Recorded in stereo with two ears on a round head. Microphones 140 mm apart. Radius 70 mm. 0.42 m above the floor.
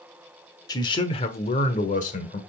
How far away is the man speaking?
About 1.0 m.